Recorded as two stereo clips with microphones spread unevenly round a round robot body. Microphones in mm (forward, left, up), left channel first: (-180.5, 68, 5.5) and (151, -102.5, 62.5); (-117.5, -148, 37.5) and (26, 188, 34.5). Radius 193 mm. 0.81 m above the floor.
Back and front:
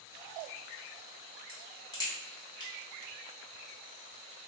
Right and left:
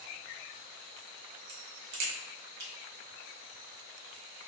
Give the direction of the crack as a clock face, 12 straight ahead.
10 o'clock.